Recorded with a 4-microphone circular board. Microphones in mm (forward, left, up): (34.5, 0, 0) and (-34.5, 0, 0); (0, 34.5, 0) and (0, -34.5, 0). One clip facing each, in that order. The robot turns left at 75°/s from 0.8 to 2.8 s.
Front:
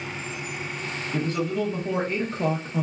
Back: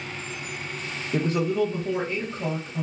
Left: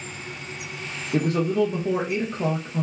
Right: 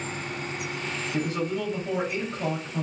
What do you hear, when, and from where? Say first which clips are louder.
1.1 s a man speaking: back 3 dB, left 7 dB; 135° left, 0.6 m; by 2.9 s 10° left, 0.6 m